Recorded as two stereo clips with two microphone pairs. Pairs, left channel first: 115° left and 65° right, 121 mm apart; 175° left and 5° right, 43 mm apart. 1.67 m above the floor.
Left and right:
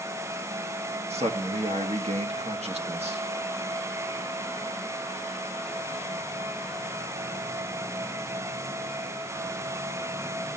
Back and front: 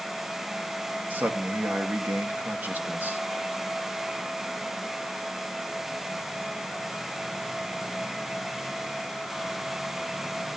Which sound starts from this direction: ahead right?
A man speaking, at 1.1 s.